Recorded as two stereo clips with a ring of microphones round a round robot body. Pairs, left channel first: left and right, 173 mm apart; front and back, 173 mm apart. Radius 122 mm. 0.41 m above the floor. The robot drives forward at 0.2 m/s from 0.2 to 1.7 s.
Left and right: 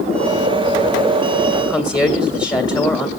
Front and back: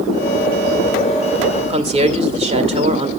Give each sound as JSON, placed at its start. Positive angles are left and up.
{"t": 1.6, "sound": "a woman speaking", "azimuth_deg": 145, "distance_m": 1.7}